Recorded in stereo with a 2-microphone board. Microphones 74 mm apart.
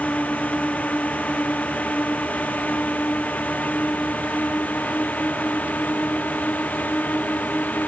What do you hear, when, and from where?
0.0 s a drone: 20° left (ahead or behind)